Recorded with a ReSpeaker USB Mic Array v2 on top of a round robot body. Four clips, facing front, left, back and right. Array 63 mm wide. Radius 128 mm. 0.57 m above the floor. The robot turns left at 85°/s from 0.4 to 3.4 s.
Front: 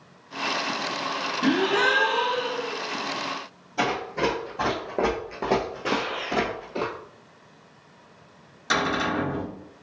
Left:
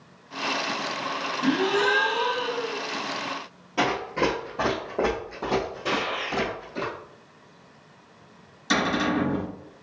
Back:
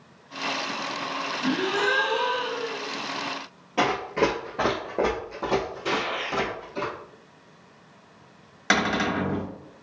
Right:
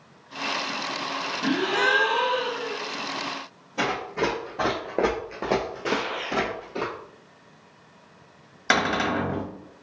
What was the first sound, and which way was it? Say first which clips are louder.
A gasp: left 1 dB, front 4 dB; 5° left.